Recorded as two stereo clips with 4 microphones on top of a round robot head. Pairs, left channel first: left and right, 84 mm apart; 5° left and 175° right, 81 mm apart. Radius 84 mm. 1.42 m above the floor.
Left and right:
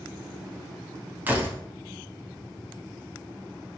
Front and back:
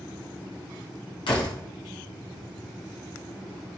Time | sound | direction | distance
1.3 | a door slam | 20° right | 2 m